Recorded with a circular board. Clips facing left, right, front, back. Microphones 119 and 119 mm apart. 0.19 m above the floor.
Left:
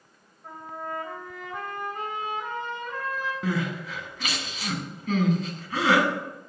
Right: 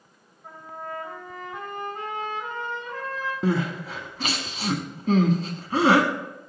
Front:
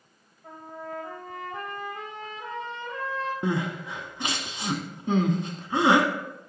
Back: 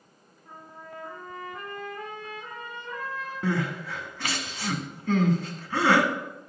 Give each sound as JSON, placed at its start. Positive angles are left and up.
{"t": 0.4, "sound": "a trumpet", "azimuth_deg": 10, "distance_m": 3.0}
{"t": 3.4, "sound": "crying", "azimuth_deg": -60, "distance_m": 1.0}